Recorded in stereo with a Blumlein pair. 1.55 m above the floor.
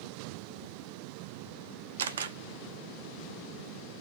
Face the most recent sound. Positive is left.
turn(degrees=-65)